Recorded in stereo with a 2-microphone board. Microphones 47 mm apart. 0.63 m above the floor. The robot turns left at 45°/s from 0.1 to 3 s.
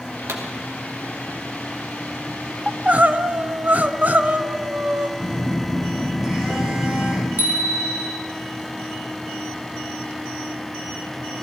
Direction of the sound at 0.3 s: 70° right (ahead or behind).